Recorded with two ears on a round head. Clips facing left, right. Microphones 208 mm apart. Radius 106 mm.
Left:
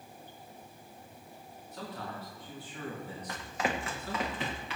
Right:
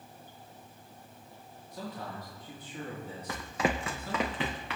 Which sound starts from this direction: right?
Running footsteps, at 3.3 s.